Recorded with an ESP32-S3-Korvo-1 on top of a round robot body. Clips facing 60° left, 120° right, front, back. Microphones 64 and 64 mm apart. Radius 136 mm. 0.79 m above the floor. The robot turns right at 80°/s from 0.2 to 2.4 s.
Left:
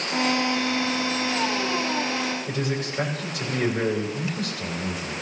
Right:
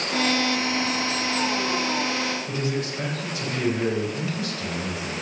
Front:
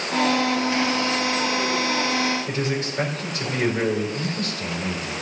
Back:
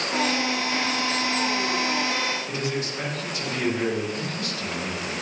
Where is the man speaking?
50° left, 3.5 m.